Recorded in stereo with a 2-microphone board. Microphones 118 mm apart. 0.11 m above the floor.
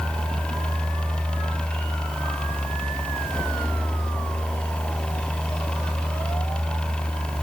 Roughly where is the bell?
No bell in this recording.